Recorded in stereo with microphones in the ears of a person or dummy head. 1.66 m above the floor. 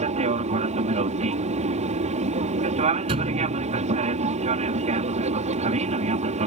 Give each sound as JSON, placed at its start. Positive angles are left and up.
{"t": 0.0, "sound": "an aircraft", "side_deg": -35}
{"t": 3.1, "sound": "a thud", "side_deg": -30}